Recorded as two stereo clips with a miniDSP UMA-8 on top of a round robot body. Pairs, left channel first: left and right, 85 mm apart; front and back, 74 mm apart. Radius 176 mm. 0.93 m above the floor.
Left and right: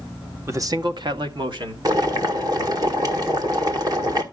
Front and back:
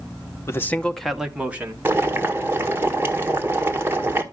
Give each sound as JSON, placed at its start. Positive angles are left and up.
{"t": 0.5, "sound": "a man speaking", "azimuth_deg": -40, "distance_m": 1.1}
{"t": 1.9, "sound": "boiling", "azimuth_deg": -125, "distance_m": 1.6}